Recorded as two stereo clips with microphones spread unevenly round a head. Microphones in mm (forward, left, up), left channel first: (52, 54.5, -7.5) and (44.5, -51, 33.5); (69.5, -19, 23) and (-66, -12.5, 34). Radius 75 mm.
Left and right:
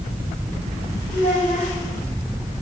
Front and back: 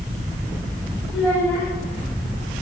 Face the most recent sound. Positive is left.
turn(degrees=90)